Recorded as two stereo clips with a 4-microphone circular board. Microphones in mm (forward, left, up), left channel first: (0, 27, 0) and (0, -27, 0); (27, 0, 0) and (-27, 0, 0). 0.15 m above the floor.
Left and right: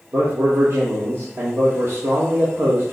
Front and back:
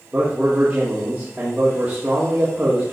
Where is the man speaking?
115° right, 4.5 m.